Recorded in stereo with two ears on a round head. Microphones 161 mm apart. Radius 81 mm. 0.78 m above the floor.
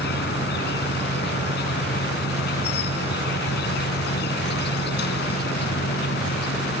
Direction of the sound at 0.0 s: 65° left (ahead or behind).